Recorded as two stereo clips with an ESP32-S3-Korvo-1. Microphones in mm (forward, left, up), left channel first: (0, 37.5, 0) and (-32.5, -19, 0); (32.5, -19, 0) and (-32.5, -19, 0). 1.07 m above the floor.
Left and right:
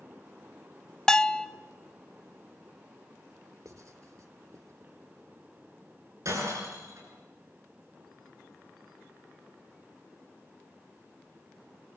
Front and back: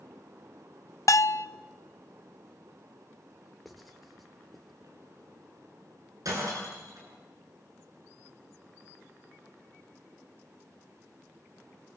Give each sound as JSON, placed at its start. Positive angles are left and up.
{"t": 1.1, "sound": "a bell", "azimuth_deg": -20, "distance_m": 0.6}
{"t": 3.6, "sound": "writing", "azimuth_deg": -90, "distance_m": 2.0}
{"t": 6.2, "sound": "breaking glass", "azimuth_deg": -155, "distance_m": 9.5}